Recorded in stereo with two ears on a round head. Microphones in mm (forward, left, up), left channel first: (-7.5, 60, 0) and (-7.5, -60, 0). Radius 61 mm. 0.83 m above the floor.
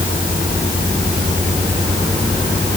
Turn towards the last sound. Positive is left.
No sound to turn to.